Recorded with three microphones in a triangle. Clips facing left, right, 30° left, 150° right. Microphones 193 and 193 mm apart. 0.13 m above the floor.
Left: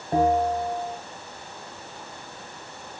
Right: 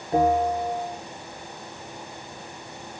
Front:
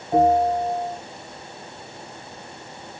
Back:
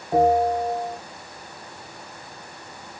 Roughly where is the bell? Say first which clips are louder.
Even, front 1 dB; behind left.